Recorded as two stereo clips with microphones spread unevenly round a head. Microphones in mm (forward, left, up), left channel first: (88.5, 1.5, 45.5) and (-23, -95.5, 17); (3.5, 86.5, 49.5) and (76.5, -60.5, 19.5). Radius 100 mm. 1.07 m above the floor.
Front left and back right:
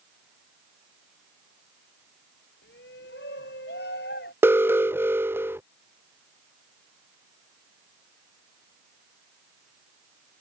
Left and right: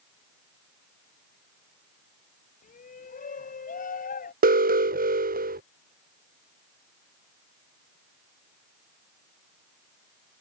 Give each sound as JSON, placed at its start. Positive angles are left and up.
{"t": 2.6, "sound": "a shout", "azimuth_deg": 75}
{"t": 4.4, "sound": "an alarm", "azimuth_deg": -70}